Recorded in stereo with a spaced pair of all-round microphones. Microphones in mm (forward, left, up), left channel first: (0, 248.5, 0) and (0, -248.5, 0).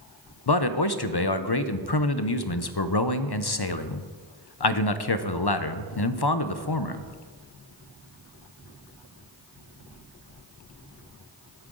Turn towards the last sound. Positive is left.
turn(degrees=55)  # may be behind; listen again after turning